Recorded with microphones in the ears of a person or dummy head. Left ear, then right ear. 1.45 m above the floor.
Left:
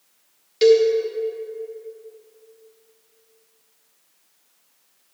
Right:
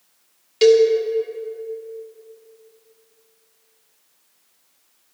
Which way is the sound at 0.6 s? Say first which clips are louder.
Right 2 dB; 10° right (ahead or behind).